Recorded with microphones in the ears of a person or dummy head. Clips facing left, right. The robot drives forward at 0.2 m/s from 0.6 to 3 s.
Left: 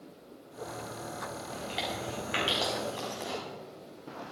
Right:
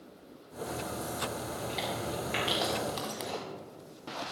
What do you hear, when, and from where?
1.5 s chewing: 10° left (ahead or behind), 4 m
3.0 s footsteps: 45° right (ahead or behind), 2 m